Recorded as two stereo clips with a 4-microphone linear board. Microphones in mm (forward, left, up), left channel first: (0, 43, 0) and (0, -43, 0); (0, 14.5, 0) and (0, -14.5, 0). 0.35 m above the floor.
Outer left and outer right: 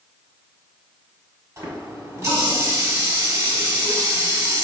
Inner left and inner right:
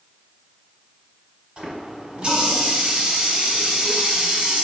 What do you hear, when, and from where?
1.6 s a running tap: 35° right (ahead or behind), 1.1 m